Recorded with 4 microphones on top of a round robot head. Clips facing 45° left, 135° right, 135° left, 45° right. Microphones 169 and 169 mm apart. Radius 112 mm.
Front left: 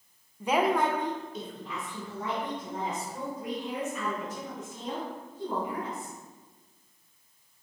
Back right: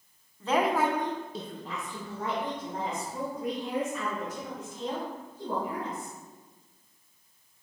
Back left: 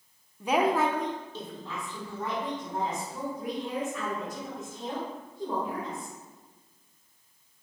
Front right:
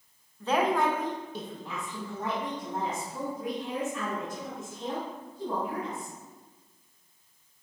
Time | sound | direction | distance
0.4 | a woman speaking | 85° left | 0.8 m